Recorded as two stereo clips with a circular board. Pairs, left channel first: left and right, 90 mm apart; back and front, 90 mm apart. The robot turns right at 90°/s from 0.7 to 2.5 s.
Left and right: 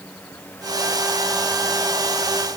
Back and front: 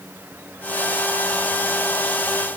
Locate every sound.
Only background noise.